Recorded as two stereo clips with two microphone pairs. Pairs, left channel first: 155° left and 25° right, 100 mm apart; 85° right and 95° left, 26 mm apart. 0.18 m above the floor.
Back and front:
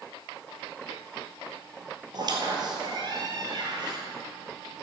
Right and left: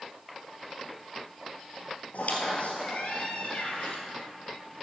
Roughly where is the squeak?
Ahead right.